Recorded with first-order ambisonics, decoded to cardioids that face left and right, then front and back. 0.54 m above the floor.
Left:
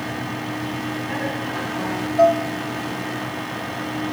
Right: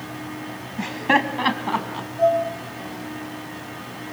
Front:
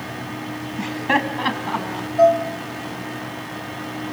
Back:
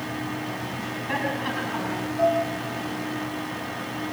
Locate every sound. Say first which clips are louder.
0.8 s laughter: right 11 dB, front 9 dB; 50° right, 3 m; by 2.1 s 60° right, 4 m
2.2 s dishes clattering: left 3 dB, front 8 dB; 50° left, 3 m